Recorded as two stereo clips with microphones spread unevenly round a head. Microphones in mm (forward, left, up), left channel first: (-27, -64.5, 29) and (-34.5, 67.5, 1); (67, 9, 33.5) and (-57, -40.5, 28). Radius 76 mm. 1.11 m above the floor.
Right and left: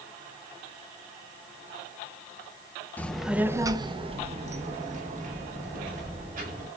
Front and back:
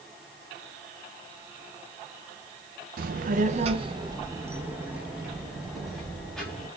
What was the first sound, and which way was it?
A child speaking, 170° right.